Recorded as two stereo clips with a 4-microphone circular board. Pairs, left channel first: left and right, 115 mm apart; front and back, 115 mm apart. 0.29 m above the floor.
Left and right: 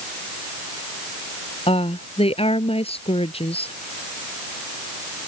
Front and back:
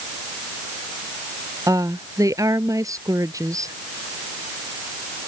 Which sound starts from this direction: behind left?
A woman speaking, at 1.7 s.